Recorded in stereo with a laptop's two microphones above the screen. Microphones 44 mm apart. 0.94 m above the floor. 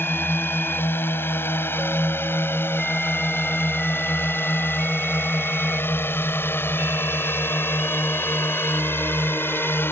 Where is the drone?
55° left (ahead or behind).